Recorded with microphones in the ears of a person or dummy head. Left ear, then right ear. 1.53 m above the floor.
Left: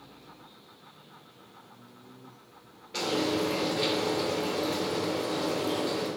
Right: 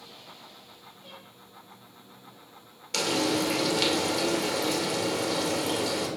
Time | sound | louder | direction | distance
2.9 | frying | right 2 dB | 85° right | 2.5 m